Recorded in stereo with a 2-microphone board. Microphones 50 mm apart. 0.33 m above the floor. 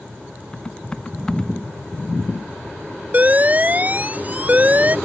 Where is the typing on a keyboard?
15° left (ahead or behind).